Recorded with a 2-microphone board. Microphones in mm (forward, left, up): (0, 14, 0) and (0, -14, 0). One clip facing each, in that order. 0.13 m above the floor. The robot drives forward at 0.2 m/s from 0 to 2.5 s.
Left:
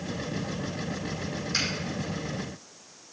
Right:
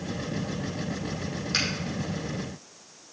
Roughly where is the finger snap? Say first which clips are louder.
Right 2 dB; right.